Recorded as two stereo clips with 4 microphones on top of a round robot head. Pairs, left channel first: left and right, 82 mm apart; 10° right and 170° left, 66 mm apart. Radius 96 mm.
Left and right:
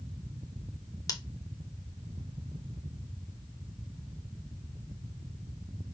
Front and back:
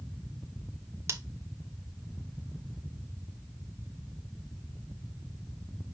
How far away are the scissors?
About 0.9 m.